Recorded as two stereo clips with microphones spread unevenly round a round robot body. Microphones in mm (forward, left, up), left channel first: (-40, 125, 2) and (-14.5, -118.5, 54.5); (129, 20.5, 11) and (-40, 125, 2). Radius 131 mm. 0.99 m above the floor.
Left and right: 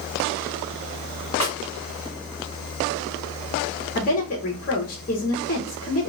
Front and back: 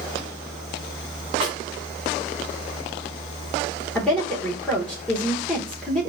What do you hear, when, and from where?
1.4 s a snare drum: 145° right, 2.5 m
4.0 s a woman speaking: 55° left, 0.9 m